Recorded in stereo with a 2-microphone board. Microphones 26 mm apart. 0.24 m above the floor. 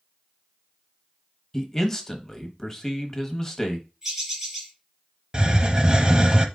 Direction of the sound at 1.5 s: 20° left (ahead or behind).